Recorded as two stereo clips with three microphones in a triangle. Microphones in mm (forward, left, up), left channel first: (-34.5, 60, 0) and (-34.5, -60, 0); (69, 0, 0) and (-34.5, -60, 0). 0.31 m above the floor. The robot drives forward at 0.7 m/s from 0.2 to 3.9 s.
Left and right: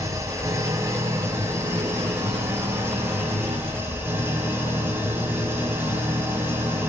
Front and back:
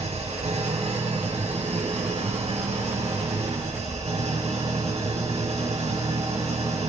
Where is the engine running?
150° right, 5.5 m; by 6.9 s 160° right, 7.5 m.